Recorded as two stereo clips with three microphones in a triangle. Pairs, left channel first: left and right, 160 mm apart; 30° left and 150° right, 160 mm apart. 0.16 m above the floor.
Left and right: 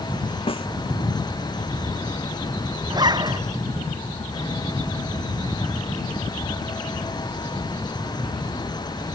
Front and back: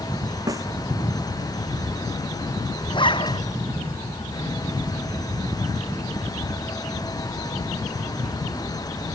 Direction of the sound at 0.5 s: 145° left.